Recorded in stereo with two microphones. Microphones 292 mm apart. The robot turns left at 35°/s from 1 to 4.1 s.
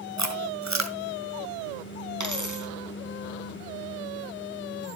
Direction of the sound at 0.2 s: 65° right (ahead or behind).